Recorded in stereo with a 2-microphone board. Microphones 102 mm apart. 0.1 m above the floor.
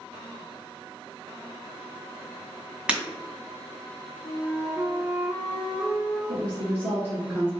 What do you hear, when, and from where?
2.9 s breaking glass: 10° right (ahead or behind), 1.8 m
4.2 s a flute: 5° right (ahead or behind), 1.6 m
6.3 s a woman speaking: 20° right (ahead or behind), 1.1 m